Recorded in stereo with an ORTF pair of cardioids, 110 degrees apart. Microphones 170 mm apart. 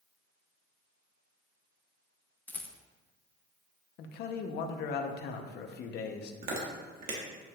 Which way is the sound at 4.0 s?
70° left.